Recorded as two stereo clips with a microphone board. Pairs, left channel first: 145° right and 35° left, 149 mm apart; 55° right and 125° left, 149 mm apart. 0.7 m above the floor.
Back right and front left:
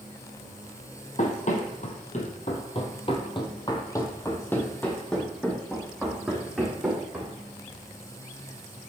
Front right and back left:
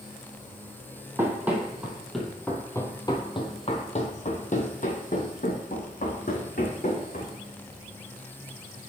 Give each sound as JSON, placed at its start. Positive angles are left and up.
{"t": 1.2, "sound": "running footsteps", "azimuth_deg": -165, "distance_m": 1.4}